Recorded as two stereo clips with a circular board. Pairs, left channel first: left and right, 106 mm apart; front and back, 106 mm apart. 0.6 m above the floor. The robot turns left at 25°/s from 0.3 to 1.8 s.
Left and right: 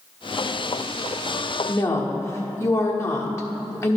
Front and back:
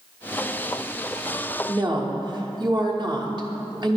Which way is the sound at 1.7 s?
150° left.